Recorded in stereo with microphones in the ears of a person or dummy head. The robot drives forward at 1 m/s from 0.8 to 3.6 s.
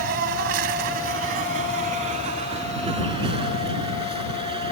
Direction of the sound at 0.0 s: 50° right (ahead or behind).